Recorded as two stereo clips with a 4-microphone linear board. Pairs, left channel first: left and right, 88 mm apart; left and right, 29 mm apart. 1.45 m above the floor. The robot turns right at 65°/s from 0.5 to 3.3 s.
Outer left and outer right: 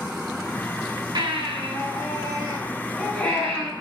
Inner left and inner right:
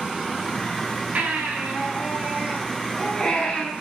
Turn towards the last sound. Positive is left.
turn(degrees=20)